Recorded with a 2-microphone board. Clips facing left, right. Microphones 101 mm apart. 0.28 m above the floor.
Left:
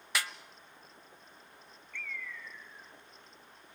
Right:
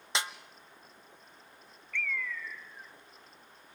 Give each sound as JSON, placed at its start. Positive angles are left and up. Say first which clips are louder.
{"t": 0.1, "sound": "a snare drum", "louder": "right 1 dB", "side_deg": -25, "distance_m": 0.8}
{"t": 1.9, "sound": "a bird", "louder": "right 8 dB", "side_deg": -75, "distance_m": 0.7}